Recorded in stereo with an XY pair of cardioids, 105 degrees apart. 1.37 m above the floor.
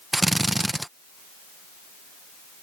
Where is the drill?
10° right.